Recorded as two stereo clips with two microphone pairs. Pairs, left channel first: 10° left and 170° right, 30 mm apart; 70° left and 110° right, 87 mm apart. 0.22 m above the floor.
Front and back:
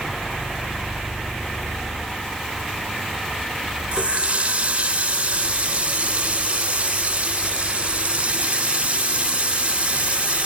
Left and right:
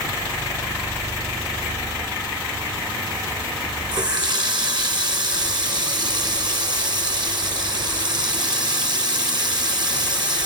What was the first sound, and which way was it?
A running tap, 130° right.